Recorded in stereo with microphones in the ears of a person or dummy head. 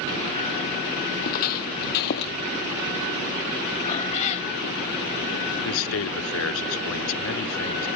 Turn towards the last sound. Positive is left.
turn(degrees=75)  # may be behind; listen again after turning